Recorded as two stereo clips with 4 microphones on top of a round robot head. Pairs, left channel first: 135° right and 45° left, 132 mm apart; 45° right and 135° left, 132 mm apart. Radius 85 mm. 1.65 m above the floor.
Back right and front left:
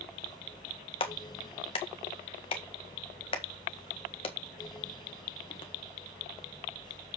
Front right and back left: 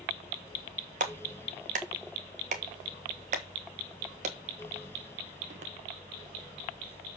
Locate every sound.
1.0 s a clap: 175° left, 1.6 m